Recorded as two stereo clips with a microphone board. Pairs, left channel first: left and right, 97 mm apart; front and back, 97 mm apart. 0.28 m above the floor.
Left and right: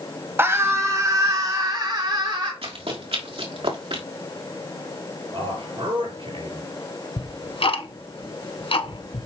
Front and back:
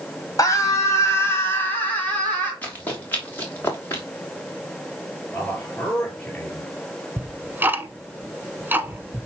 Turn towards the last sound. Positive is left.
turn(degrees=110)